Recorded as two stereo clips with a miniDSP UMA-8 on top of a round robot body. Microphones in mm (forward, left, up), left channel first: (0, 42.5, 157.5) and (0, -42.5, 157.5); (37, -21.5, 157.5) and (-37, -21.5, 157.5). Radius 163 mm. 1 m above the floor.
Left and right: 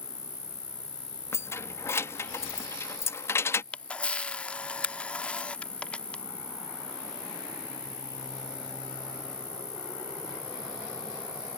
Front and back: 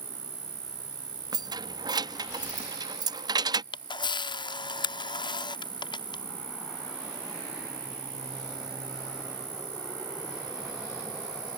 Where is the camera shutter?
15° left.